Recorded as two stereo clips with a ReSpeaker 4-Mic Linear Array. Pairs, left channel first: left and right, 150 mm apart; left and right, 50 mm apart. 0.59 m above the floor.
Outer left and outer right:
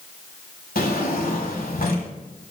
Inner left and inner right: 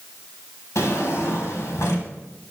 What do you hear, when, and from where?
0.8 s a drawer: 80° left, 1.6 m